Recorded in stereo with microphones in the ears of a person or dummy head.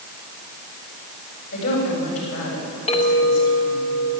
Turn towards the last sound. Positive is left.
turn(degrees=35)  # may be behind; listen again after turning